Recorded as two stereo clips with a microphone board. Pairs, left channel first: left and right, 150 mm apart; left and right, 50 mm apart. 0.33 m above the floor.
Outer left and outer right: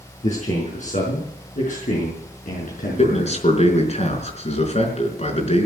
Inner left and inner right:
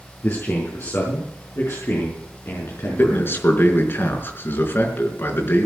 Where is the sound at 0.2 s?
55° left (ahead or behind), 4.5 m; by 3.4 s 75° left (ahead or behind), 5.5 m.